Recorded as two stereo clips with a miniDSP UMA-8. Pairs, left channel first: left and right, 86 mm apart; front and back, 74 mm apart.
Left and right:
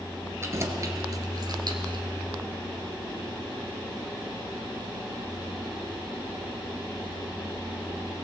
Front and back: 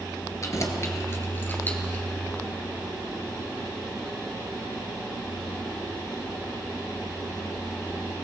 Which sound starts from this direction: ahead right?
Keys jangling, at 0.4 s.